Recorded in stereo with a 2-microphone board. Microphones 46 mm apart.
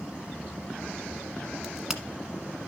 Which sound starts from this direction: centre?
A crack, at 1.6 s.